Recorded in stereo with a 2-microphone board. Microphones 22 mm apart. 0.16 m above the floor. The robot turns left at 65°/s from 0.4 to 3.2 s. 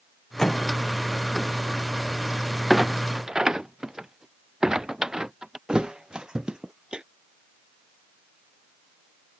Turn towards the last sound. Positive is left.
turn(degrees=-35)  # may be behind; listen again after turning